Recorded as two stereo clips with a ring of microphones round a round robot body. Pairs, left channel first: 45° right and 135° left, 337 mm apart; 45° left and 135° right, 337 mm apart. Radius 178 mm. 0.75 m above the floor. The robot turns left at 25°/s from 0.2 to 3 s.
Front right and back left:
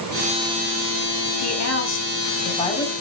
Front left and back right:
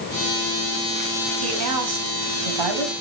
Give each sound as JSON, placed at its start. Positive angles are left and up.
{"t": 1.4, "sound": "a woman speaking", "azimuth_deg": -90, "distance_m": 4.5}